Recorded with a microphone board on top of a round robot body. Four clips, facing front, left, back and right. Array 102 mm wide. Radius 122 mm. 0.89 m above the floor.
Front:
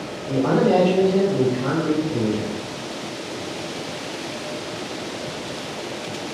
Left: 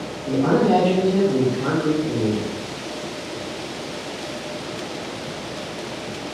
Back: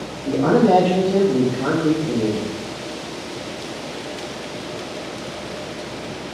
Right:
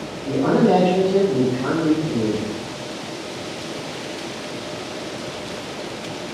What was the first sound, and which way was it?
A man speaking, 160° right.